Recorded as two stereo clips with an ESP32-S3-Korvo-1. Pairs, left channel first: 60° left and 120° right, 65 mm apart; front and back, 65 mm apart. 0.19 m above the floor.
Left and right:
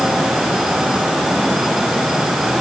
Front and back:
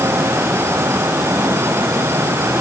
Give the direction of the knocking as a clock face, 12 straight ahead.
No knocking in this recording.